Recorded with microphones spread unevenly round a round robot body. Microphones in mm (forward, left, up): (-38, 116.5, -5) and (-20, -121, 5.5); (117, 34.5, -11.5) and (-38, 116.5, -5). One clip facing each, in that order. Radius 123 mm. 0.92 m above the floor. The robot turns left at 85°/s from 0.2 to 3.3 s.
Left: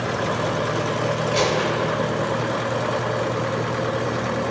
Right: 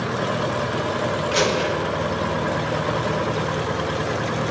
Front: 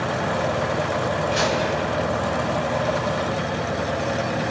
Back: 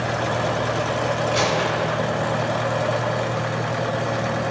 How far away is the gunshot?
About 2 m.